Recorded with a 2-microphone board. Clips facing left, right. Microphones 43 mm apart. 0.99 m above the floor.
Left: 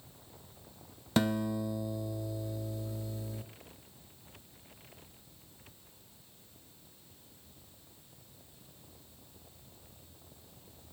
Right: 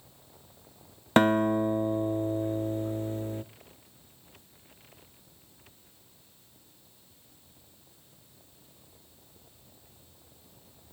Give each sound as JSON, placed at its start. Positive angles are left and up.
{"t": 1.2, "sound": "a guitar", "side_deg": -45, "distance_m": 0.6}